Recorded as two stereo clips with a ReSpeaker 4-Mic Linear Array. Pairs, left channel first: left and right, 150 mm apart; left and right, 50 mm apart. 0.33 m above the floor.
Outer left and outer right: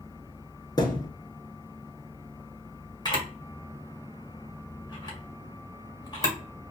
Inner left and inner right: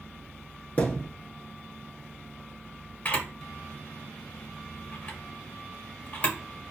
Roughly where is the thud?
Left.